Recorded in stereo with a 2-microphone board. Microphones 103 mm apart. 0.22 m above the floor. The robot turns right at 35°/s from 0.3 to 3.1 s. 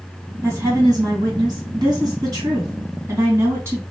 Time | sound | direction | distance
0.4 | a woman speaking | 135° right | 1.9 m